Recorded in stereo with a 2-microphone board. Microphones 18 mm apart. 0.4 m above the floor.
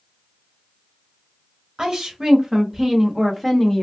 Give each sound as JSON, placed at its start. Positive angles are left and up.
{"t": 1.8, "sound": "a woman speaking", "side_deg": -40, "distance_m": 1.5}